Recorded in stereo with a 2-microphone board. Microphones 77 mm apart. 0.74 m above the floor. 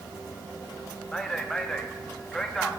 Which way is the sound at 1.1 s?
10° left (ahead or behind).